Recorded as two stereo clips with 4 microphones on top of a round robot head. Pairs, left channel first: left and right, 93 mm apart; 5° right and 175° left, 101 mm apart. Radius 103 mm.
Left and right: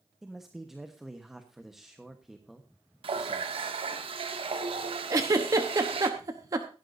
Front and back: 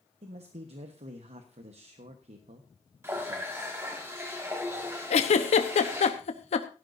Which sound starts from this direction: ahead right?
A giggle, at 5.1 s.